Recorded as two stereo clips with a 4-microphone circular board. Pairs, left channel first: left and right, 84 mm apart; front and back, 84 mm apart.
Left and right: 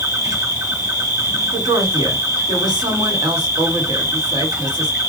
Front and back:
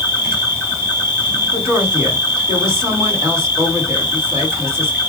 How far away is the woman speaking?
About 2.5 m.